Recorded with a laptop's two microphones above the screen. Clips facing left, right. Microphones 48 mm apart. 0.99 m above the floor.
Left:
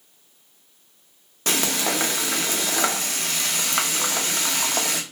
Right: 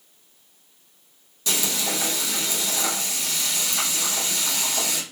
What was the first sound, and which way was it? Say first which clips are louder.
Frying: left 3 dB; 55° left (ahead or behind).